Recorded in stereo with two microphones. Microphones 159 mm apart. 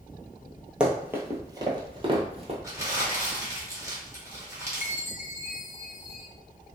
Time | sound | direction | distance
0.8 | running footsteps | 5° right (ahead or behind) | 0.9 m
2.6 | crumpling | 20° right (ahead or behind) | 1.3 m
4.8 | a chime | 50° left (ahead or behind) | 0.6 m